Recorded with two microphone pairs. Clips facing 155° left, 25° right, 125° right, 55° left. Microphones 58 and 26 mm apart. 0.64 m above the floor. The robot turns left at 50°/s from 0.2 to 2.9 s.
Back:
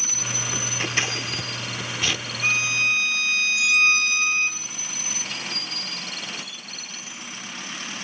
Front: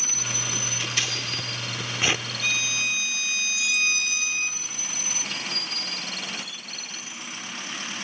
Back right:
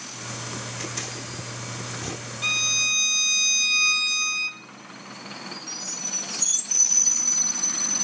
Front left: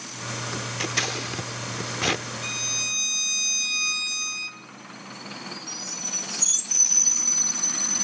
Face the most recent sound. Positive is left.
turn(degrees=175)